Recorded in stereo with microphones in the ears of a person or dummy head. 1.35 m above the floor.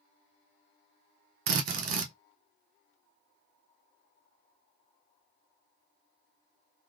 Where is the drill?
50° right (ahead or behind), 0.5 m.